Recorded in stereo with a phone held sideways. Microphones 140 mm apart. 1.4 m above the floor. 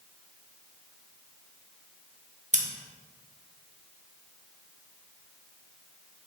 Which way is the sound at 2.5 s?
55° right (ahead or behind).